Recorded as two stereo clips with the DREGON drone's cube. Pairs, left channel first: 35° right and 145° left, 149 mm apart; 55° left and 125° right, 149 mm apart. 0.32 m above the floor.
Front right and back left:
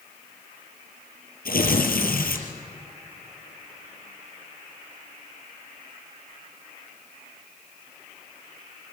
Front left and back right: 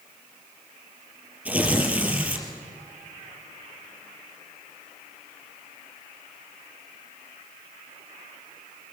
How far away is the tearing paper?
About 4 m.